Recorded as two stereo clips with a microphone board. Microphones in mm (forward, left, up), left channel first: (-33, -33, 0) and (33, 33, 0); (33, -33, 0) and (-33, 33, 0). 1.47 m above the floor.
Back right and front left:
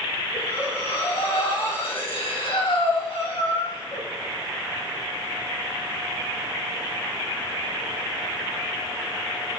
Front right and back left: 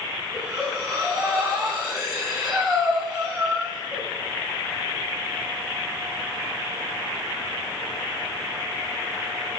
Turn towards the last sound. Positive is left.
turn(degrees=-140)